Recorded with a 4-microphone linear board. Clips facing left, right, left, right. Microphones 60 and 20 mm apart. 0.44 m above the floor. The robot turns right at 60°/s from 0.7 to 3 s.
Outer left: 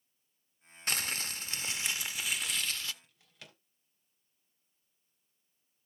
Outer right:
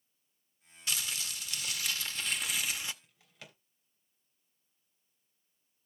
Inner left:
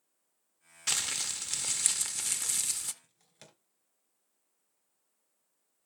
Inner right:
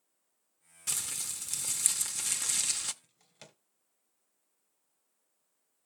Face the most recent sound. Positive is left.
turn(degrees=-5)  # may be behind; listen again after turning